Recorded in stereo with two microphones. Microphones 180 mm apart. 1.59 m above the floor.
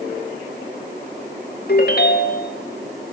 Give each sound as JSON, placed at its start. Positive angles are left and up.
{"t": 1.7, "sound": "a ringtone", "side_deg": 60, "distance_m": 2.0}